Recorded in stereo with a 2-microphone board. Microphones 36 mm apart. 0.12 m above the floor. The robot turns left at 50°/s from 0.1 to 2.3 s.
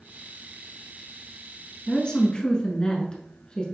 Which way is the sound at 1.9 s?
30° left (ahead or behind).